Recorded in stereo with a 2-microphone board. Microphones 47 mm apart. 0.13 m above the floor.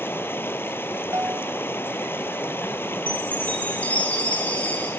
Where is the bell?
75° right (ahead or behind), 0.7 m.